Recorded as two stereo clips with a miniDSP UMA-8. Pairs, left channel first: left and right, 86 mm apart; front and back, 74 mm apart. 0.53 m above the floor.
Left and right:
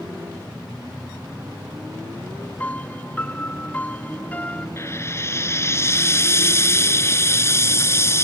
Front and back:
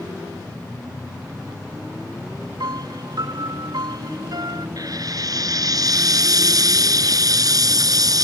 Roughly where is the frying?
Behind left.